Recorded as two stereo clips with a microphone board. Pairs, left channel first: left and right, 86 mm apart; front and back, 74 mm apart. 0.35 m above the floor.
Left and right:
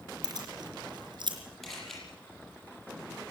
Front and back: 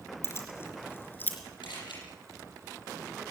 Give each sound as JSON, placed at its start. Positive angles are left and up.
{"t": 0.2, "sound": "keys jangling", "azimuth_deg": -55, "distance_m": 4.0}
{"t": 1.6, "sound": "a camera shutter", "azimuth_deg": 5, "distance_m": 9.0}